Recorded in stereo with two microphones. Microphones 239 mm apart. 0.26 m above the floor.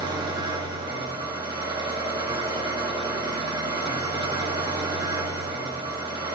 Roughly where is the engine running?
Centre.